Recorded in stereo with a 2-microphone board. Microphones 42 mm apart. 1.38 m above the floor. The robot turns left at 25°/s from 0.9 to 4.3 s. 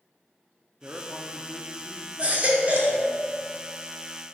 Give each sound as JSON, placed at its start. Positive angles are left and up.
{"t": 0.8, "sound": "a man speaking", "azimuth_deg": -135, "distance_m": 0.6}
{"t": 2.2, "sound": "a baby crying", "side_deg": -30, "distance_m": 1.2}